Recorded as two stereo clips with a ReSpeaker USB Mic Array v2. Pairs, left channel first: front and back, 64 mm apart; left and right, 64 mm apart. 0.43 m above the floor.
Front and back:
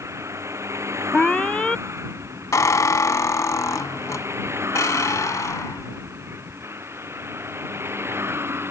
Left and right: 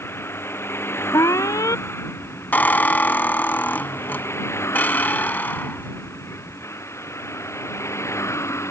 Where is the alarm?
70° left.